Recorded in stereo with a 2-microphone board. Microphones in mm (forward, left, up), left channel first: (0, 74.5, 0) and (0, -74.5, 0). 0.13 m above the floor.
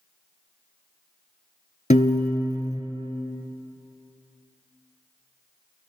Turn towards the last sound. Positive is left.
turn(degrees=55)  # may be behind; listen again after turning